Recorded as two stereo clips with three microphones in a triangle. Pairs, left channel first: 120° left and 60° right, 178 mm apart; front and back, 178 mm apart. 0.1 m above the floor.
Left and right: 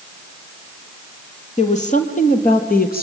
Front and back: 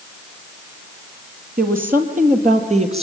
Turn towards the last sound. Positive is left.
turn(degrees=130)